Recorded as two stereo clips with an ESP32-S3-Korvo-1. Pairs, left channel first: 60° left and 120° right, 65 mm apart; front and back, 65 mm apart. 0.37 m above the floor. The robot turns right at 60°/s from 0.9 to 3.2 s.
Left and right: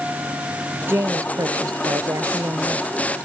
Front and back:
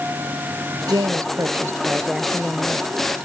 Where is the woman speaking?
170° right; by 3.0 s 45° right.